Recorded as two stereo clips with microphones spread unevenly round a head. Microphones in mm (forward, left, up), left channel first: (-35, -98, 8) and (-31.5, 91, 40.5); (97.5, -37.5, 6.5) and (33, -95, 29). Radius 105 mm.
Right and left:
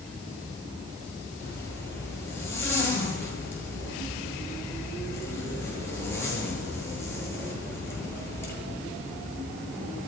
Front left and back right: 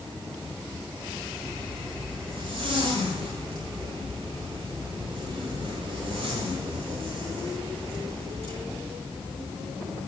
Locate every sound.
1.4 s a zipper: 170° right, 10 m